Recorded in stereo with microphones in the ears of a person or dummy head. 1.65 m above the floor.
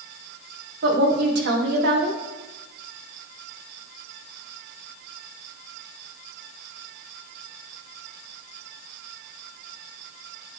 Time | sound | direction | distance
0.8 | a woman speaking | 60° right (ahead or behind) | 1.2 m